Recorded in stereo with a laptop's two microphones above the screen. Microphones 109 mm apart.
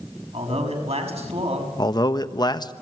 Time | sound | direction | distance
0.3 | a man speaking | 65° right (ahead or behind) | 6 m
1.8 | a man speaking | 35° left (ahead or behind) | 1.2 m